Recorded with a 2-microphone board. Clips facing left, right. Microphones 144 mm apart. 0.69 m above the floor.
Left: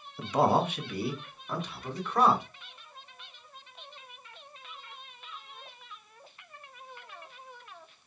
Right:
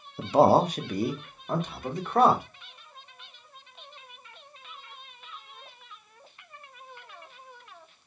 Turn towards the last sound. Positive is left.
turn(degrees=-50)  # may be behind; listen again after turning